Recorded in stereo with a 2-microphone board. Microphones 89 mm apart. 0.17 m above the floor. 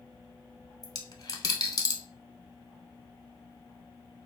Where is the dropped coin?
45° left (ahead or behind), 0.5 m.